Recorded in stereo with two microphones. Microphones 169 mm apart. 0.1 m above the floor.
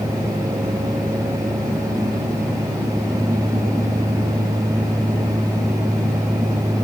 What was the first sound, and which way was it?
Only background noise.